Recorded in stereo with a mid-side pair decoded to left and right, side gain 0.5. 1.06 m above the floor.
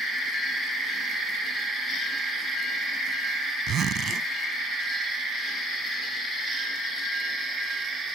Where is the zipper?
60° right.